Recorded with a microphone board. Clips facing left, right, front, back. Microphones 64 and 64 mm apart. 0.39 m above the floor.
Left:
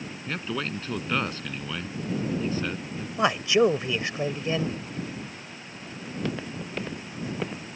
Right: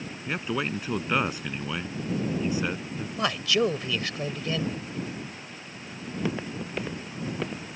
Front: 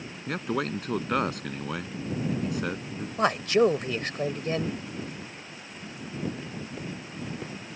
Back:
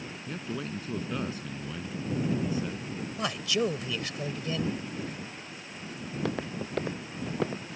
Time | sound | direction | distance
0.3 | a man speaking | 15° right | ?
3.2 | a man speaking | 30° left | ?
6.0 | footsteps | 165° right | ?